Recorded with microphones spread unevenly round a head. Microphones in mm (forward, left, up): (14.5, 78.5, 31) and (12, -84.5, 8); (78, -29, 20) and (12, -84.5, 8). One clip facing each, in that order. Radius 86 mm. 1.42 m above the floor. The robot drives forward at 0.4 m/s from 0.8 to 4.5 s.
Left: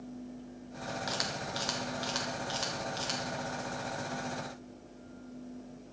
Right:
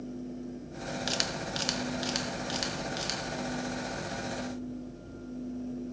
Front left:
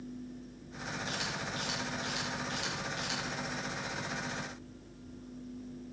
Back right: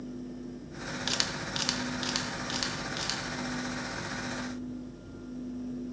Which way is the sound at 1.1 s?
150° right.